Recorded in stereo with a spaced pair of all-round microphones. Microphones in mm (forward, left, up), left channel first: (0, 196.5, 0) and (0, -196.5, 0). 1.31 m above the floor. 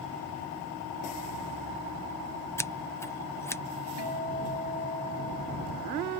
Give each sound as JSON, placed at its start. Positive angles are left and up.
{"t": 2.6, "sound": "scissors", "side_deg": 5}
{"t": 4.0, "sound": "a guitar", "side_deg": -80}